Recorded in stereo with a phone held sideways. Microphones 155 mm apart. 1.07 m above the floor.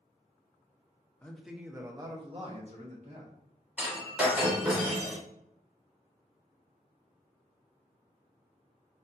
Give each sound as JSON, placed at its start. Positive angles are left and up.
{"t": 1.2, "sound": "a man speaking", "side_deg": 10, "distance_m": 0.8}
{"t": 3.8, "sound": "breaking glass", "side_deg": -10, "distance_m": 2.0}